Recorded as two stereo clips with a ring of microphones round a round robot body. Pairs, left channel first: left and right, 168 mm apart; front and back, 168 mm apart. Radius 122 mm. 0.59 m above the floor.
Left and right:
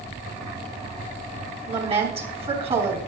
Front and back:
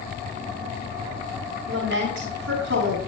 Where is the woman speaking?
145° right, 6.5 m.